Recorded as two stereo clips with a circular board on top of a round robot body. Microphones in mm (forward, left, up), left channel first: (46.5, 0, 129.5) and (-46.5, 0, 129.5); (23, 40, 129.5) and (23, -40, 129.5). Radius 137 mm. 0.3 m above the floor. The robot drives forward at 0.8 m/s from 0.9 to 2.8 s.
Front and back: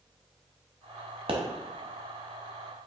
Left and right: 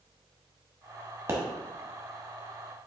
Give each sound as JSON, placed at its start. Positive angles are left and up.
{"t": 1.3, "sound": "a pop", "azimuth_deg": -150, "distance_m": 0.8}